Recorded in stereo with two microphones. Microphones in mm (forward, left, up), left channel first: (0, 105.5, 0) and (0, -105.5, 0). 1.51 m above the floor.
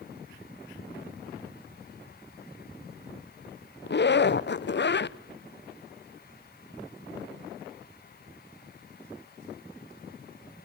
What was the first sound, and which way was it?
A zipper, 55° left (ahead or behind).